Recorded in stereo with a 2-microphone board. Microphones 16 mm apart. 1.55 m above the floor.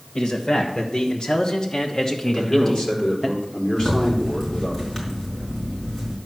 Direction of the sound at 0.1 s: 70° left (ahead or behind).